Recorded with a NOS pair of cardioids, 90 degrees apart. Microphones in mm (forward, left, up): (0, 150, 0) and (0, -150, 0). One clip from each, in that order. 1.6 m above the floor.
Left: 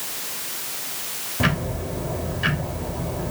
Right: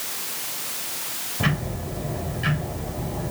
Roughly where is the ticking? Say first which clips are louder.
Left 3 dB; ahead left.